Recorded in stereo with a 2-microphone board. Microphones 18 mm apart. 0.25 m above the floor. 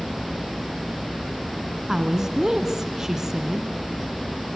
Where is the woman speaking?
30° right (ahead or behind), 2.5 m.